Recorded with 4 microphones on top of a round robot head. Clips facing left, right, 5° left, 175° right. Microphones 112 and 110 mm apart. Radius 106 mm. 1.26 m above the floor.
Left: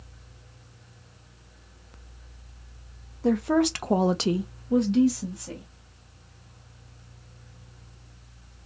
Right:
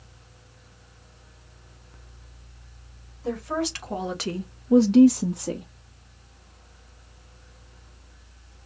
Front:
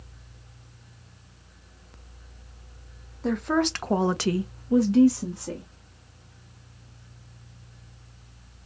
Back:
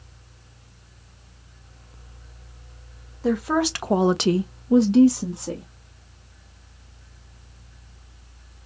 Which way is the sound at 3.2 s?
100° left.